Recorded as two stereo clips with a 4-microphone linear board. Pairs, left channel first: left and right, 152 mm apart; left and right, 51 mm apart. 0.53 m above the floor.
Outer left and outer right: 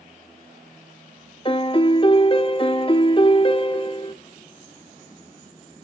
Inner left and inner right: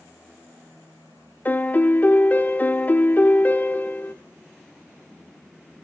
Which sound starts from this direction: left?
A piano, at 1.4 s.